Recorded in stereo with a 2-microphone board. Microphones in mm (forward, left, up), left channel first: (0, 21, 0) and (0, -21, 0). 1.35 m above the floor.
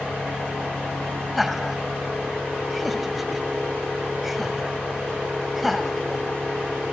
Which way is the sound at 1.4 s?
5° right (ahead or behind).